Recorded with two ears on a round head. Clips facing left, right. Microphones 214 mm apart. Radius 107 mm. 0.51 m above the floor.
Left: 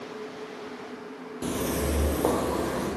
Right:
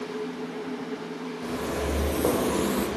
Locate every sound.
1.4 s footsteps: 45° left (ahead or behind), 0.7 m; by 2.9 s 40° right (ahead or behind), 0.8 m